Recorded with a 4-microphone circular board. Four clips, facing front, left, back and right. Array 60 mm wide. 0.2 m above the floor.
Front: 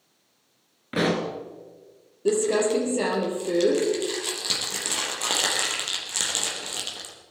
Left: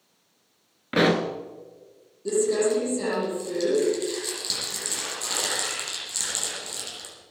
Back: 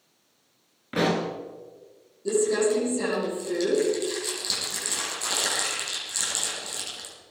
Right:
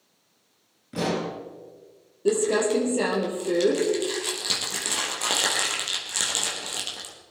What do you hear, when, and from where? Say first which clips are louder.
0.9 s a pop: left 6 dB, even; 85° left, 1.8 m
2.2 s crumpling: even, front 1 dB; 45° right, 5.5 m